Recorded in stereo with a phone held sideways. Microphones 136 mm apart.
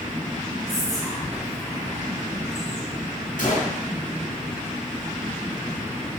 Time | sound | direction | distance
0.7 | whispering | 25° left (ahead or behind) | 1.8 m
3.4 | a gunshot | 70° left (ahead or behind) | 1.1 m